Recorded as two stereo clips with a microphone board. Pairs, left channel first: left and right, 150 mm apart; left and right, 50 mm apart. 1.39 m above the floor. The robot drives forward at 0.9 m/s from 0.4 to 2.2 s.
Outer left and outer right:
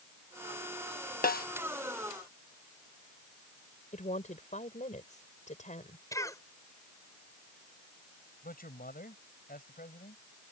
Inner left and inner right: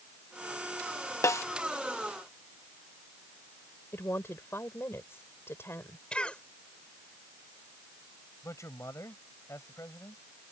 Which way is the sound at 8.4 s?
75° left (ahead or behind).